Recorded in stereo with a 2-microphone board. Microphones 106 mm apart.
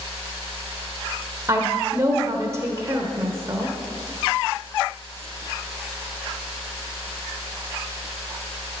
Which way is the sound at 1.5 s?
30° right (ahead or behind).